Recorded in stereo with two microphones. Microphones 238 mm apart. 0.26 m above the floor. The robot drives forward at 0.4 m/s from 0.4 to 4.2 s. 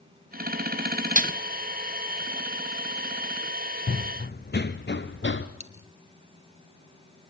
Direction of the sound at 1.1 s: 35° right (ahead or behind).